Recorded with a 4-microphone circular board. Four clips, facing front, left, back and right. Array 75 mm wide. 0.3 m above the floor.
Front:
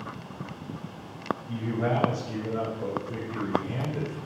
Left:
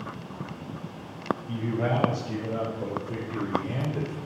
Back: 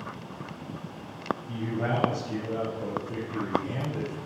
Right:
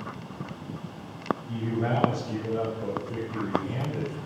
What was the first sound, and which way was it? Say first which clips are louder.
A man speaking: left 1 dB, front 3 dB; 95° left.